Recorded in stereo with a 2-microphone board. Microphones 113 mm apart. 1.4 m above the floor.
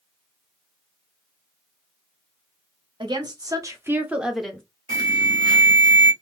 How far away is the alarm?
About 1.4 m.